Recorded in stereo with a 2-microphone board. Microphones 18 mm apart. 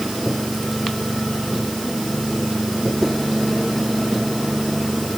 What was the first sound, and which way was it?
Only background noise.